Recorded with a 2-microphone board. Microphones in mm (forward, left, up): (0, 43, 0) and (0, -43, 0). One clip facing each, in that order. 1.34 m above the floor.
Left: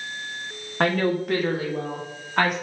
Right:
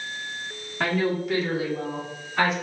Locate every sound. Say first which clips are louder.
0.8 s a woman speaking: left 3 dB; 50° left (ahead or behind), 1.5 m; by 2.5 s 55° left (ahead or behind), 2.5 m